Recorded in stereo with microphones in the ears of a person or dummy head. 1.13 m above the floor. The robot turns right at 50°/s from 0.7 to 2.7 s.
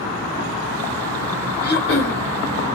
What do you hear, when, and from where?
1.6 s throat clearing: 50° left (ahead or behind), 1.1 m; by 2.2 s 65° left (ahead or behind), 1.1 m